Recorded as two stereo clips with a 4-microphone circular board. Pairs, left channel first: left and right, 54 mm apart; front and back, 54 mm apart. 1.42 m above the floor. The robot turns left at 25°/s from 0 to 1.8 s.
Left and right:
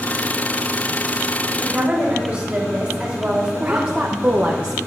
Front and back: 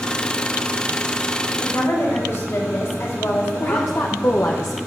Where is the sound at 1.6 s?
15° right, 4 m; by 4.0 s 20° right, 4 m.